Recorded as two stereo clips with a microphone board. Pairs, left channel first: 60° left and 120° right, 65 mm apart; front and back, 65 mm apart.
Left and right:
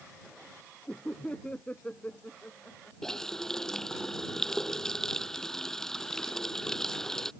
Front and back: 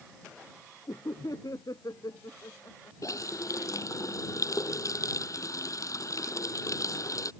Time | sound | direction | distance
0.9 | laughter | 10° right | ?
3.0 | a running tap | 20° right | ?